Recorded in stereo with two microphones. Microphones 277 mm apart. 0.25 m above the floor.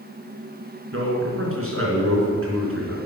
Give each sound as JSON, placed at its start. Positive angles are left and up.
{"t": 0.9, "sound": "a man speaking", "side_deg": -50, "distance_m": 3.5}